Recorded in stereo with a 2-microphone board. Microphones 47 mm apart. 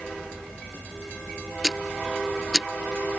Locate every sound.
1.6 s ticking: 5° right (ahead or behind)